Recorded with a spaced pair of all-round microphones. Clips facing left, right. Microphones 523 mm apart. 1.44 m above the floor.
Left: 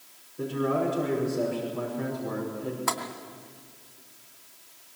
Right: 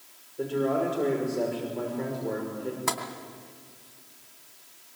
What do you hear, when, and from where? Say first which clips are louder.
0.4 s a man speaking: right 1 dB; 25° left (ahead or behind), 6 m
2.9 s tapping: even; 50° right (ahead or behind), 2.5 m